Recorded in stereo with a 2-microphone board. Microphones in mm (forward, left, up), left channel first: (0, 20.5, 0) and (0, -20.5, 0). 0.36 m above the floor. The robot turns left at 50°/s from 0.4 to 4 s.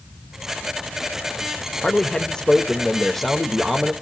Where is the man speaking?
20° left (ahead or behind), 0.8 m; by 3.9 s 10° right (ahead or behind), 0.8 m.